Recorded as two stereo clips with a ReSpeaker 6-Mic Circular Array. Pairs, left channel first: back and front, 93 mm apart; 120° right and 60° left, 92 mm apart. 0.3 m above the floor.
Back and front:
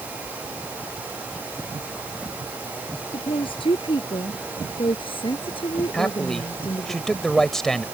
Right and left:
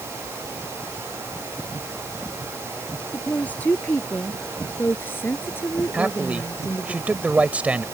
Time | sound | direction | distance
3.1 | a woman speaking | 165° left | ?
5.9 | a man speaking | 105° left | ?